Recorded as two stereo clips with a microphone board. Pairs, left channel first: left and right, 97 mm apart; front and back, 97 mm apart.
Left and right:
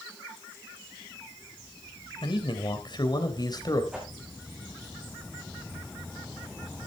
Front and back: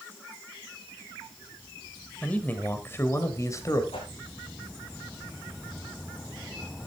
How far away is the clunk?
I don't hear a clunk.